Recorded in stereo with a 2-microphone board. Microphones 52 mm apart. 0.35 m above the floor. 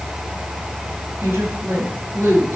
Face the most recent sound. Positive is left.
turn(degrees=-65)  # may be behind; listen again after turning